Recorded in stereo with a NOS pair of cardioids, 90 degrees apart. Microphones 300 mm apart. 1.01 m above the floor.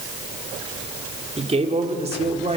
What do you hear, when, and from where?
1.4 s a man speaking: 20° right, 3.5 m